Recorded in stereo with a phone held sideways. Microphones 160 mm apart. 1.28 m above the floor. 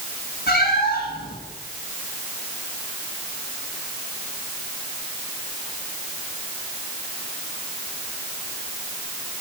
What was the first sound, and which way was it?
A cat meowing, 75° left (ahead or behind).